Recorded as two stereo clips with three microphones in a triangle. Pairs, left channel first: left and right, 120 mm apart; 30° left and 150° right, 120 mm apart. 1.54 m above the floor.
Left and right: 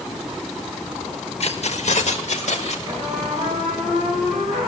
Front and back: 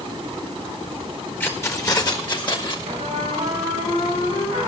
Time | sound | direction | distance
1.4 | keys jangling | 100° left | 1.2 m
2.9 | a trumpet | 105° right | 8 m